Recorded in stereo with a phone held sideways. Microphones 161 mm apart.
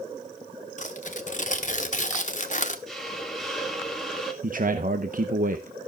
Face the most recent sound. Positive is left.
turn(degrees=-60)  # may be behind; listen again after turning